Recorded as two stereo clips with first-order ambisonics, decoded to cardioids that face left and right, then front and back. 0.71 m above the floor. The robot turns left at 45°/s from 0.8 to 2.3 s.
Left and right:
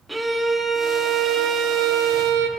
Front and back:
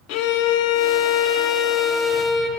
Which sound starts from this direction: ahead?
A violin, at 0.1 s.